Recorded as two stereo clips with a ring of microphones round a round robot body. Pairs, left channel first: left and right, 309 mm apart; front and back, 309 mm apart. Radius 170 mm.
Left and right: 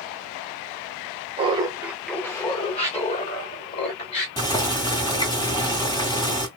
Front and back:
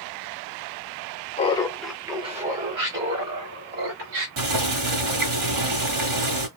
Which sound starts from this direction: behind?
Boiling, at 4.4 s.